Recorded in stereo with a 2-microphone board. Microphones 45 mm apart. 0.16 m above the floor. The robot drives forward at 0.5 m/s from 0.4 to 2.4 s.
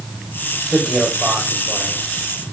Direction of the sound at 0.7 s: 5° right (ahead or behind).